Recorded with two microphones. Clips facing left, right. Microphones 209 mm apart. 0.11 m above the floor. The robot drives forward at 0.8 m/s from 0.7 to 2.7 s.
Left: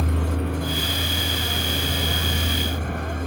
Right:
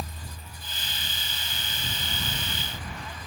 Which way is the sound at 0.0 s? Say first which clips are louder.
Left 16 dB; 70° left (ahead or behind).